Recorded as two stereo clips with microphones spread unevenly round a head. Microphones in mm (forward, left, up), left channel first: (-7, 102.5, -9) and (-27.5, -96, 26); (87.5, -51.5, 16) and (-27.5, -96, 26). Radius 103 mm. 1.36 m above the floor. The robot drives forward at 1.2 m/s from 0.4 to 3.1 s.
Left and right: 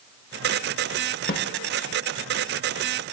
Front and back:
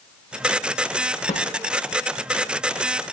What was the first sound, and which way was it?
A snare drum, 45° left.